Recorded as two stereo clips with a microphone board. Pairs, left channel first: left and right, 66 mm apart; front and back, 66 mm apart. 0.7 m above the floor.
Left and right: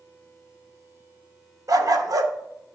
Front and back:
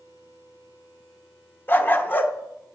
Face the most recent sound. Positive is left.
turn(degrees=-60)